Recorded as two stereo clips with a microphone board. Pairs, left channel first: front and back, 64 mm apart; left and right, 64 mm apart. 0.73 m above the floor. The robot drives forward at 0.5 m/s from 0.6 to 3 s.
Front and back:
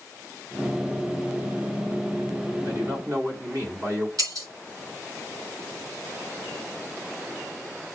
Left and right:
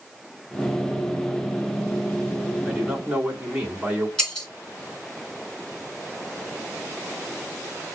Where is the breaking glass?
170° left, 2 m.